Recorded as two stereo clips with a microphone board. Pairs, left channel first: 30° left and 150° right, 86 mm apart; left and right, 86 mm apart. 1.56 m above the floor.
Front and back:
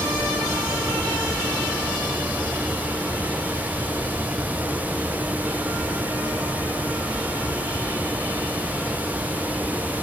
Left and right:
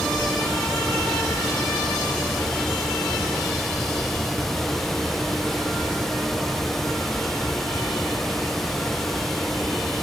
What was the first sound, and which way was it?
Only background noise.